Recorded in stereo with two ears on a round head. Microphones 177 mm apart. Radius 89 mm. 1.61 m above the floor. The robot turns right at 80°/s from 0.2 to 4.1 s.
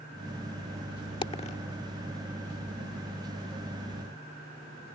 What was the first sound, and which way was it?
A dropped coin, 25° left (ahead or behind).